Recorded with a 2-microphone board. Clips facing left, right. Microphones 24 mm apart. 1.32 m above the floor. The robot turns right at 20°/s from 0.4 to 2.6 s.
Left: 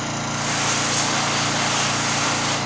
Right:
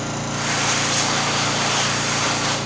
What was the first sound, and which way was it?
An engine running, 15° left.